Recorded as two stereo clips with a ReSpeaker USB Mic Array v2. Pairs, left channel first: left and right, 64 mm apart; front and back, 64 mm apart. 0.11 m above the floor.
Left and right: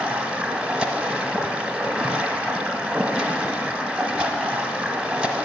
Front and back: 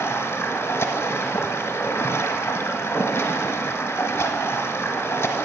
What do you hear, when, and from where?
0.0 s running water: 20° right, 1.1 m